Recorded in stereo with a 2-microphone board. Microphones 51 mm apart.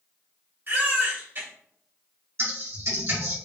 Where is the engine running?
No engine running in this recording.